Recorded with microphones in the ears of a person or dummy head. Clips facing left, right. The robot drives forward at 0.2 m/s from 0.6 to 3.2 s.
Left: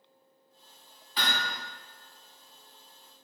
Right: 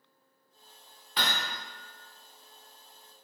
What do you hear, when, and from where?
1.2 s hammering: 55° right (ahead or behind), 1.0 m